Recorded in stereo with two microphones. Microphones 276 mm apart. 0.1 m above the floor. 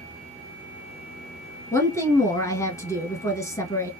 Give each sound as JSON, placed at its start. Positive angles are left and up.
{"t": 1.7, "sound": "a woman speaking", "side_deg": 10, "distance_m": 1.1}